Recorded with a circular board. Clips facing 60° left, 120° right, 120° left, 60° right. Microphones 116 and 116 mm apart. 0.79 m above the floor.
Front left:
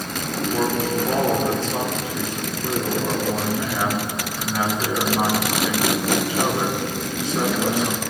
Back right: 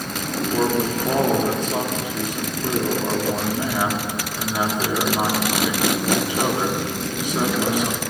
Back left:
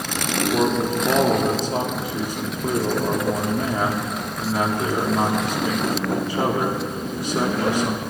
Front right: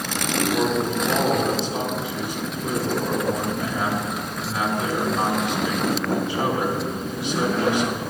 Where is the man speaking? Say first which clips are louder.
Back right 1 dB, back left 3 dB; 165° left, 1.3 m.